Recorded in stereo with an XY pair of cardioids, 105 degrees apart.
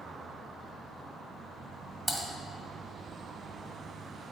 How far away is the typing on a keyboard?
About 1.6 m.